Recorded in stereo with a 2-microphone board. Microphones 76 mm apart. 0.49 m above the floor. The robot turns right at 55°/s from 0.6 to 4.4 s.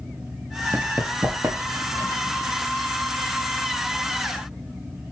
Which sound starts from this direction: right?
Running footsteps, at 0.7 s.